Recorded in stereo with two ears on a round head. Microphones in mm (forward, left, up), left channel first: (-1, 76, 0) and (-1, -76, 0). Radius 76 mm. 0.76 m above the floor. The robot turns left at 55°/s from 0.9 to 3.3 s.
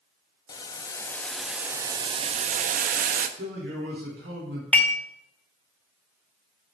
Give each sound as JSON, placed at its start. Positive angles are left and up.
{"t": 0.5, "sound": "boiling", "azimuth_deg": 25, "distance_m": 0.5}
{"t": 3.4, "sound": "a man speaking", "side_deg": -70, "distance_m": 2.0}
{"t": 4.7, "sound": "dishes clattering", "side_deg": 10, "distance_m": 0.6}